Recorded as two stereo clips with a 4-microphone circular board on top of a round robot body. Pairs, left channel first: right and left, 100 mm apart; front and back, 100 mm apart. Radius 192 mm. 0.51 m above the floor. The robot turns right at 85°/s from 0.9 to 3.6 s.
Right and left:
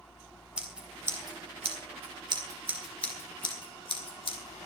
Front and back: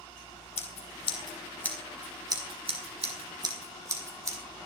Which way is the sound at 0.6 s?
10° left.